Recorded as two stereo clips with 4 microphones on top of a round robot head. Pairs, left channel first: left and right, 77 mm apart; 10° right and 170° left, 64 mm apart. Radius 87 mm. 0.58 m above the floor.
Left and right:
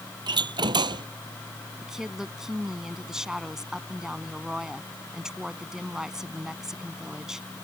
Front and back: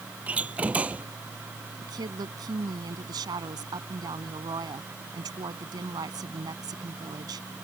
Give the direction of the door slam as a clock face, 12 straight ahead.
4 o'clock.